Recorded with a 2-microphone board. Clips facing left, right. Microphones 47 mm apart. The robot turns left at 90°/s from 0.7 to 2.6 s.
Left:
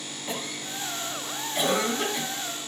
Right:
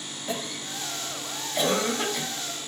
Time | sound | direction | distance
0.3 | a cough | 25° left (ahead or behind) | 1.5 m